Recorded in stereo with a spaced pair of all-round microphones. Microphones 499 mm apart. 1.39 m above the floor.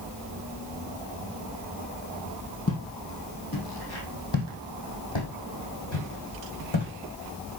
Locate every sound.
2.7 s footsteps: 30° left (ahead or behind), 2.5 m; by 6.9 s 60° left (ahead or behind), 3.5 m